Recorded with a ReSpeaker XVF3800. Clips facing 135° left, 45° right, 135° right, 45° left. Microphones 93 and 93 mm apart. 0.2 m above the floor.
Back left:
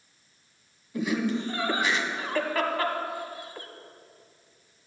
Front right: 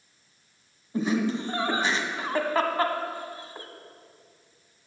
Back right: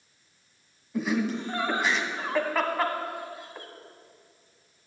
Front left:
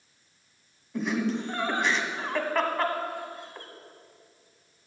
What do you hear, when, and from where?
0.9 s laughter: 50° right, 1.2 m